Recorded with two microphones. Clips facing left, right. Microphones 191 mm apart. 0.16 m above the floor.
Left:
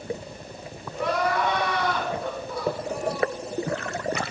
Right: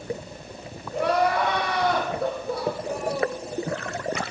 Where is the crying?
70° right (ahead or behind), 4.5 m.